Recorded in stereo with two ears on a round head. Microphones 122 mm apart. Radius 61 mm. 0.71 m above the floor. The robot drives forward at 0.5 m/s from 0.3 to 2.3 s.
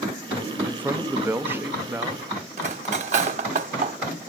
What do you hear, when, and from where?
0.7 s a man speaking: 15° right (ahead or behind), 0.7 m
2.6 s cutlery clinking: 50° right (ahead or behind), 1.0 m